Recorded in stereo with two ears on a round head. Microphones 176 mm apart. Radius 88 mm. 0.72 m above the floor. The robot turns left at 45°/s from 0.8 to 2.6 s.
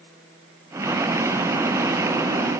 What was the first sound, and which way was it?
Only background noise.